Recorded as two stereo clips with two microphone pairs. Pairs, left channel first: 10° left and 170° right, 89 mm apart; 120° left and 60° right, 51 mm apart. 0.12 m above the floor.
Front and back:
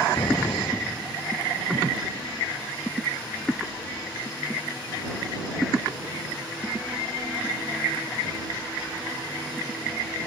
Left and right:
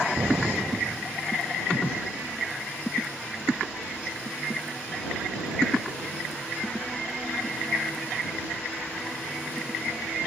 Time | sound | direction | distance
0.2 | an explosion | 30° right | ?